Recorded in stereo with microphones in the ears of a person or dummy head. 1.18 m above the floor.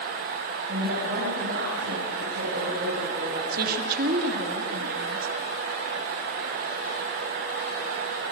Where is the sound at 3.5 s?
50° right (ahead or behind), 2.5 m.